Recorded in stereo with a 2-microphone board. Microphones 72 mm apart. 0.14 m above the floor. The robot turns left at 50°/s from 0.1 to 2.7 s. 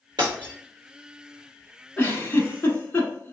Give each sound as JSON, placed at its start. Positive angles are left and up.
{"t": 0.2, "sound": "breaking glass", "side_deg": -90, "distance_m": 1.2}
{"t": 2.0, "sound": "a giggle", "side_deg": 20, "distance_m": 0.9}